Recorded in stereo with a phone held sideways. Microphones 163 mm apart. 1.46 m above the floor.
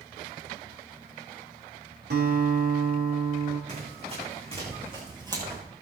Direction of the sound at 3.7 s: 45° right (ahead or behind).